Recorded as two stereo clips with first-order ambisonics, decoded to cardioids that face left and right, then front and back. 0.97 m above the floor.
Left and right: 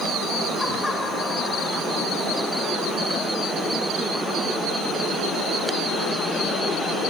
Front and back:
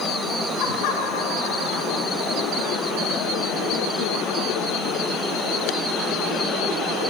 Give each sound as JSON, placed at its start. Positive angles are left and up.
{"t": 0.6, "sound": "laughter", "azimuth_deg": 10, "distance_m": 8.0}